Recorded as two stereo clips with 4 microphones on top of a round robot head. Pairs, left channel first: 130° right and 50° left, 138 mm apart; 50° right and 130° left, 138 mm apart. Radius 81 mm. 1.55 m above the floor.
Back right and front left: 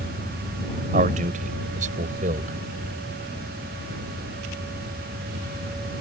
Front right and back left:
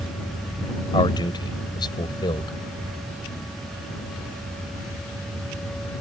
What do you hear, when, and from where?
0.9 s a man speaking: 10° left